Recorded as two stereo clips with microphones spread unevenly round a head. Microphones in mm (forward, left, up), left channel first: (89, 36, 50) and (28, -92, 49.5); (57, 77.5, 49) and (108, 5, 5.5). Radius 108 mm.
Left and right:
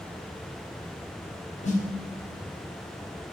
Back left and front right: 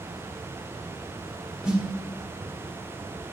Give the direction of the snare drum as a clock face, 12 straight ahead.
11 o'clock.